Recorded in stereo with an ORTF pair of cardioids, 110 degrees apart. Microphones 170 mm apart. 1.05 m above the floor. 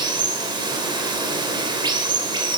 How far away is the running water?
About 2.5 m.